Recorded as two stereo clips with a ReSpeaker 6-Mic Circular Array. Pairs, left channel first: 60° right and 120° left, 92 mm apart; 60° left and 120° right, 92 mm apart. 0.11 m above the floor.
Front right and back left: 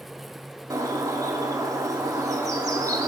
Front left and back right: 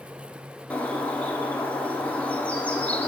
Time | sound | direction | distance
0.7 | a bird | 125° left | 0.5 m